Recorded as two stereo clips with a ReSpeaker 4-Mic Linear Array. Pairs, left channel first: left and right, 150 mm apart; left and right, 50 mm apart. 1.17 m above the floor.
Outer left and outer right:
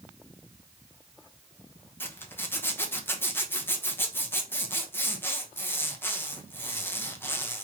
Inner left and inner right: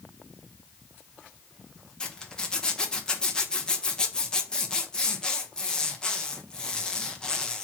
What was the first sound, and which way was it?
A zipper, 15° left (ahead or behind).